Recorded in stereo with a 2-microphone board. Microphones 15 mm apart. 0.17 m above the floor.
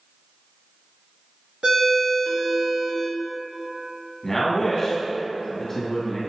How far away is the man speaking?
About 1.3 m.